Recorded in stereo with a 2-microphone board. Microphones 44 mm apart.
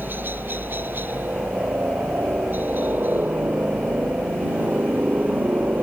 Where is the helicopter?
50° right (ahead or behind); by 5.8 s 45° right (ahead or behind).